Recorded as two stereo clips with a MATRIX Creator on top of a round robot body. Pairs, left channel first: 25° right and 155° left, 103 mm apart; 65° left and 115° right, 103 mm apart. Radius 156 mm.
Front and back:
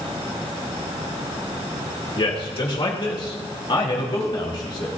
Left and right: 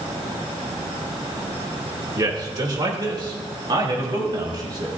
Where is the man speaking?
60° right, 2.5 m; by 4.9 s 65° right, 4 m.